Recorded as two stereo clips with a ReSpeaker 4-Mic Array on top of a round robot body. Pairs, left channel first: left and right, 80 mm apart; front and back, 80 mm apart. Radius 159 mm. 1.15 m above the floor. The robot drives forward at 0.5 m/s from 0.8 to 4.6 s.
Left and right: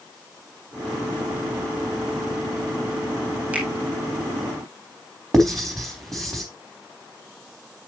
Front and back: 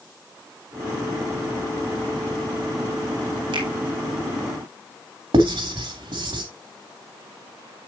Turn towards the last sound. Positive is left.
turn(degrees=175)